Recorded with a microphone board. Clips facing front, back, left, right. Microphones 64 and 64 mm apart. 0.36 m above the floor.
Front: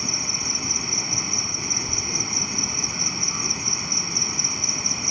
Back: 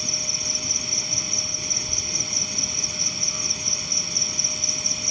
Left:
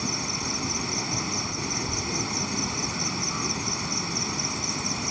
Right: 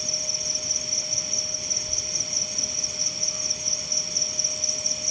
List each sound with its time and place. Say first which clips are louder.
0.0 s an insect: front 3 dB, left 7 dB; 60° left